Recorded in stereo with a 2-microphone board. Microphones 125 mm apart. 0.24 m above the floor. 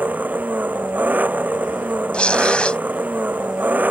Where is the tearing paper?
10° left (ahead or behind).